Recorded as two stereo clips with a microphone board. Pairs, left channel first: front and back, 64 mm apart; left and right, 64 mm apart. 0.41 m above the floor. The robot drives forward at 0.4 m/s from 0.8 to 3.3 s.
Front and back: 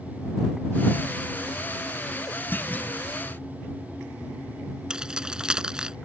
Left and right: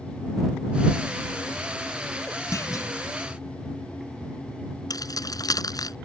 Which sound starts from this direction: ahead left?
A clunk, at 2.5 s.